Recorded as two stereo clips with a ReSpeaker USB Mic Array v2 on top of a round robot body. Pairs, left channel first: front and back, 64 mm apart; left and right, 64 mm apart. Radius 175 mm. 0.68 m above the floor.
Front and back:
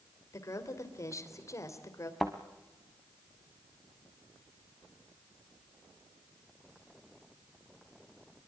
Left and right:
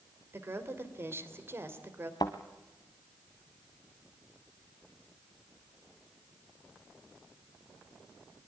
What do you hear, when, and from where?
0.3 s a woman speaking: 40° right, 3 m
2.2 s a thud: 90° left, 0.5 m